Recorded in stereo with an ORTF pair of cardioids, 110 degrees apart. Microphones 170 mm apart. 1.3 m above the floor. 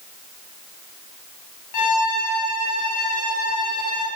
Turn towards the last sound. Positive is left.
turn(degrees=55)